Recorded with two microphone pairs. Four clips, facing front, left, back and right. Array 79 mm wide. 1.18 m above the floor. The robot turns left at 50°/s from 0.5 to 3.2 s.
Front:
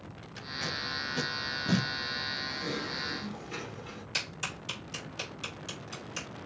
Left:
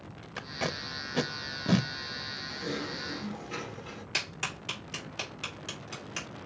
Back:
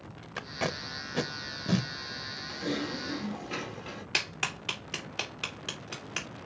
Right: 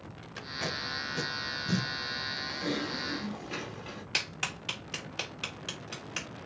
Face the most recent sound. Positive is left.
turn(degrees=-170)